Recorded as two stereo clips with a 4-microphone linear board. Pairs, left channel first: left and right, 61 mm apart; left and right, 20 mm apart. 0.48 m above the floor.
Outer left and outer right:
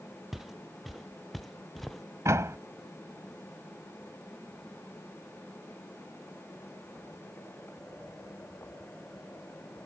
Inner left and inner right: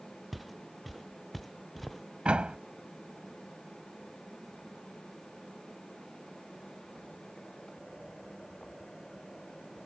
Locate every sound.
0.3 s footsteps: 5° right (ahead or behind); by 2.0 s centre (ahead or behind)
2.2 s a door slam: 50° right (ahead or behind)